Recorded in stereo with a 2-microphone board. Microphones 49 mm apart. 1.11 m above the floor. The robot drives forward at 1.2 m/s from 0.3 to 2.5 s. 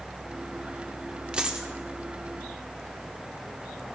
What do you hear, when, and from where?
1.3 s a dropped coin: 20° right (ahead or behind), 1.3 m; by 1.7 s 15° right (ahead or behind), 1.6 m